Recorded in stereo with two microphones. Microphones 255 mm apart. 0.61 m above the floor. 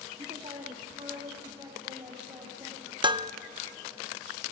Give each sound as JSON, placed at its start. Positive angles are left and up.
{"t": 0.2, "sound": "a man speaking", "side_deg": -25, "distance_m": 1.5}
{"t": 3.0, "sound": "dishes clattering", "side_deg": -20, "distance_m": 0.5}